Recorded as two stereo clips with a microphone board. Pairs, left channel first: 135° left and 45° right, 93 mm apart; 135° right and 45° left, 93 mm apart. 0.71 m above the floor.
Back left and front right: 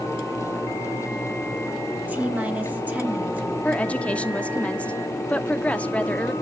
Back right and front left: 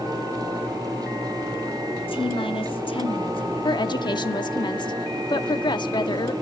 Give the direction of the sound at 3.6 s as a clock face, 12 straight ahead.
5 o'clock.